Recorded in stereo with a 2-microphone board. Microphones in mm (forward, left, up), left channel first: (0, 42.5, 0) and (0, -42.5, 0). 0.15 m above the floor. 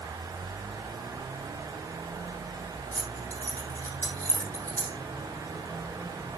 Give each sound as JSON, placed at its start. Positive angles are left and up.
{"t": 2.9, "sound": "keys jangling", "side_deg": 20, "distance_m": 4.5}